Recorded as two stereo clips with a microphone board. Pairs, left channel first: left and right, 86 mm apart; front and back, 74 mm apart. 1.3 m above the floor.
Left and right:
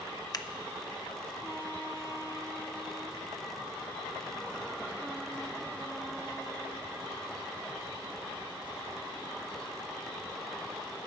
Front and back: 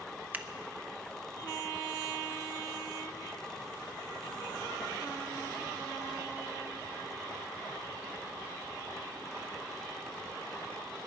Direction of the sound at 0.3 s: 120° left.